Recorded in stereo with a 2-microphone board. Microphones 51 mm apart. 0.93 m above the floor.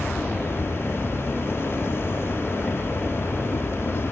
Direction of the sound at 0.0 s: 60° left (ahead or behind).